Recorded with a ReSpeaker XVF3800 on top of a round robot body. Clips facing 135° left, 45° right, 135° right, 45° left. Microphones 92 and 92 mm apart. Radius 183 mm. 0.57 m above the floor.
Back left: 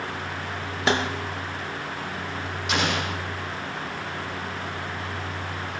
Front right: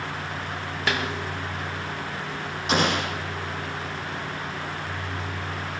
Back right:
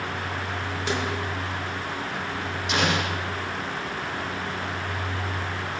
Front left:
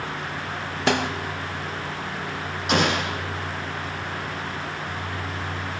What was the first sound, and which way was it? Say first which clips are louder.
A snare drum: back left 4 dB, front left 6 dB; 75° left.